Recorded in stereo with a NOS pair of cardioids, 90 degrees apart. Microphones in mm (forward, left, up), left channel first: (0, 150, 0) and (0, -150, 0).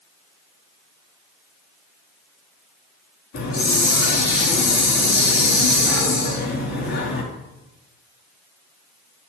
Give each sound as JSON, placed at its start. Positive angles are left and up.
{"t": 3.3, "sound": "a hiss", "azimuth_deg": 50, "distance_m": 3.5}